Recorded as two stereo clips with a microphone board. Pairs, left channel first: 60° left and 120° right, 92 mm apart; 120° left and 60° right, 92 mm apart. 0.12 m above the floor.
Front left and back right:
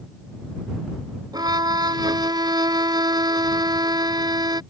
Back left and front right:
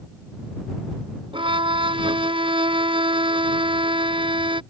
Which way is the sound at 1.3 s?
80° right.